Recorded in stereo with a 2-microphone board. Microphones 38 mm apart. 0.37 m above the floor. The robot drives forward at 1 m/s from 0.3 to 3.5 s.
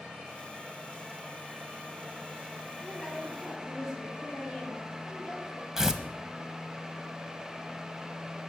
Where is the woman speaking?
15° right (ahead or behind), 7.5 m; by 5.7 s 10° right (ahead or behind), 8.5 m.